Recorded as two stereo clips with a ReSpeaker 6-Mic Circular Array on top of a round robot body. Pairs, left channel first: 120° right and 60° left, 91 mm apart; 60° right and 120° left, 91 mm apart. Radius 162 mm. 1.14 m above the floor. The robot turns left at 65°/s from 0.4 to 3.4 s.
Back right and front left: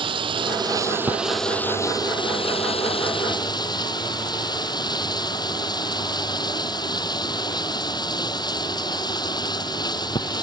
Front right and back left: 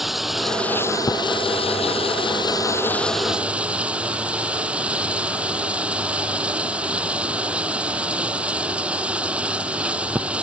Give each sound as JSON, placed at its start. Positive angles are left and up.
{"t": 0.0, "sound": "running water", "azimuth_deg": 30}